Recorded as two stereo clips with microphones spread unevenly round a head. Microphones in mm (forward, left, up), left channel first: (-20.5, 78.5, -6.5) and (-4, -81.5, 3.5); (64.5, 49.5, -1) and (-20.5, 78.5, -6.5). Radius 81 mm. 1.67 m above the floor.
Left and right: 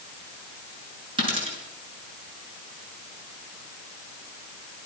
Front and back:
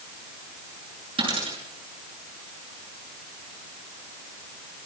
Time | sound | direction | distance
1.2 | a dropped coin | 140° right | 7.5 m